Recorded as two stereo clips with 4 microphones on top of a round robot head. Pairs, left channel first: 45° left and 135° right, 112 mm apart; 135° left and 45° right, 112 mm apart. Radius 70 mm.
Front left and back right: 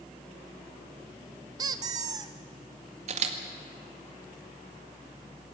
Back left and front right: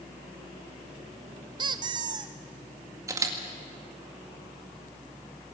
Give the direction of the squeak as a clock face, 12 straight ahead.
3 o'clock.